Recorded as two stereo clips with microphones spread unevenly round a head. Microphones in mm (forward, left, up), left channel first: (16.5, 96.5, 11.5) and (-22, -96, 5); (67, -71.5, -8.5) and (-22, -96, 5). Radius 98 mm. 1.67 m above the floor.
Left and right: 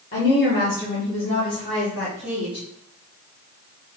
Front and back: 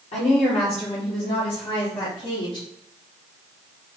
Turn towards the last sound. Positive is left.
turn(degrees=-20)